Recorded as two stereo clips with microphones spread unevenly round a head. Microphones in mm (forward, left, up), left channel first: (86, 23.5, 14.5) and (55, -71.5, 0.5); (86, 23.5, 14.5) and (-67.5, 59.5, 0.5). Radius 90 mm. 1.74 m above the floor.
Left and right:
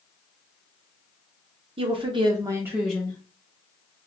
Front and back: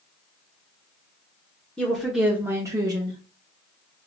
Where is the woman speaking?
95° right, 0.8 m; by 3.2 s 120° left, 0.6 m.